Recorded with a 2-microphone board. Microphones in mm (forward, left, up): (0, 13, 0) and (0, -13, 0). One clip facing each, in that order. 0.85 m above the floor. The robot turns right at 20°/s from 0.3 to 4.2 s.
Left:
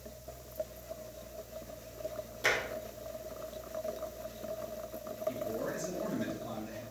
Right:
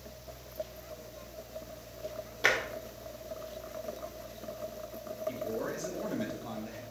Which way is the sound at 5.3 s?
40° right (ahead or behind).